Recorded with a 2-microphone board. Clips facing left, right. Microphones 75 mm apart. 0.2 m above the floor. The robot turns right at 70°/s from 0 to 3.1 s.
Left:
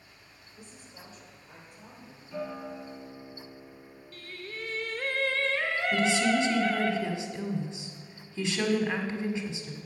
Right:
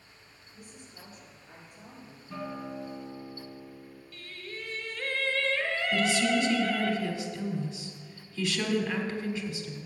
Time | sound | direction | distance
0.5 | a woman speaking | straight behind | 3.5 m
2.3 | a guitar | 90° right | 2.5 m
4.1 | singing | 45° left (ahead or behind) | 1.0 m
5.9 | a woman speaking | 25° left (ahead or behind) | 1.3 m